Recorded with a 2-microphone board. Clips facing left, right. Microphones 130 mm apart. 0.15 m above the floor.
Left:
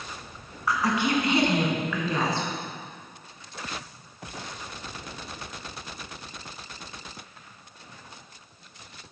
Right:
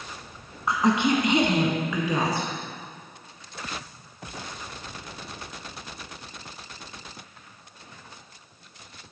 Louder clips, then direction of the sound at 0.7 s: Right 3 dB; 25° right (ahead or behind).